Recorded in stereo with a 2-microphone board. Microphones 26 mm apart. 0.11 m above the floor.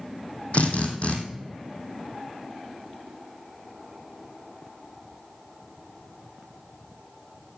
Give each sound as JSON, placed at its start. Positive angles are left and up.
{"t": 0.5, "sound": "a drill", "side_deg": 60, "distance_m": 2.0}